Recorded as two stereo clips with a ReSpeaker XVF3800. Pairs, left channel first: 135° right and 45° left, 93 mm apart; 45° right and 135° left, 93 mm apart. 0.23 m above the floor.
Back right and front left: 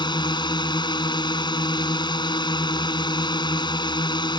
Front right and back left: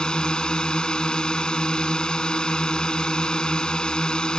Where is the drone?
125° right.